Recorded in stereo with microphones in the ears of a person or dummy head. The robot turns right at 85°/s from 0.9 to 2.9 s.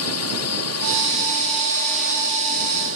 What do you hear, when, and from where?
0.0 s a drone: 90° left; by 3.0 s 100° right